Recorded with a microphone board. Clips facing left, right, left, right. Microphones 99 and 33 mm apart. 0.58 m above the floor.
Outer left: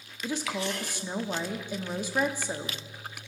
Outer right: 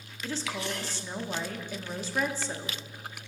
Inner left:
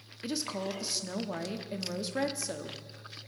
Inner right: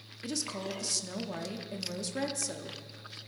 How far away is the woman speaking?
About 0.6 m.